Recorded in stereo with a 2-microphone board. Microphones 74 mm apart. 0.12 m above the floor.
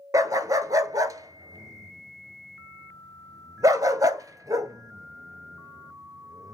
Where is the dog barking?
55° right (ahead or behind), 0.6 m.